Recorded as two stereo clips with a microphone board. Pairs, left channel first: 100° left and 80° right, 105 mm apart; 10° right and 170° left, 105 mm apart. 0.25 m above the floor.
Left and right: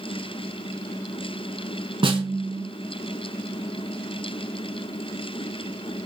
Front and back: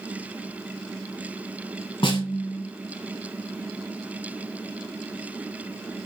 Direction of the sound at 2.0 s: 45° right.